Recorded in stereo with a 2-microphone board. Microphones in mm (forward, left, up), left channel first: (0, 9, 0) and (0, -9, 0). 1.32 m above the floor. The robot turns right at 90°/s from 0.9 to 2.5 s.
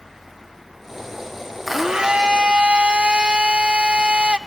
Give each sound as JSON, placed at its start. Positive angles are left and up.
{"t": 1.7, "sound": "a blender", "azimuth_deg": -165, "distance_m": 0.6}